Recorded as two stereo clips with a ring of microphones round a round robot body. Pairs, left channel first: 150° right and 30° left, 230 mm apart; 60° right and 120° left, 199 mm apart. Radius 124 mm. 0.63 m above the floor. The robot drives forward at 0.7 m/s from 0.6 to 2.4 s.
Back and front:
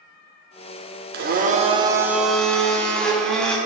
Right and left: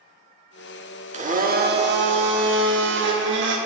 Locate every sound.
1.1 s a blender: 70° left, 1.0 m; by 3.6 s 125° left, 1.1 m